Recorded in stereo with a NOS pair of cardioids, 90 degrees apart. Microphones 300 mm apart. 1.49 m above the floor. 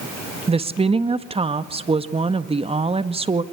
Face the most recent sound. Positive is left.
turn(degrees=-20)